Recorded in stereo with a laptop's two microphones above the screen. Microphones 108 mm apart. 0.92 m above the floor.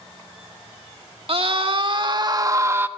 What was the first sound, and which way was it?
A scream, 60° right (ahead or behind).